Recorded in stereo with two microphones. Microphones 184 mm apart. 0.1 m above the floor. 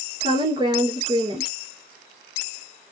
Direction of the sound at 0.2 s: 25° right (ahead or behind).